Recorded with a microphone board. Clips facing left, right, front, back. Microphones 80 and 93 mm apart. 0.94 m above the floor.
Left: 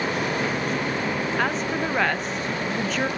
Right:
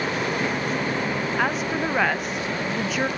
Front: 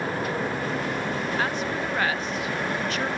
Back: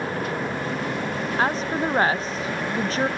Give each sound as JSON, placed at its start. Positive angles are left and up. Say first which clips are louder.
{"t": 1.4, "sound": "a woman speaking", "louder": "right 2 dB, back 4 dB", "azimuth_deg": -170, "distance_m": 0.6}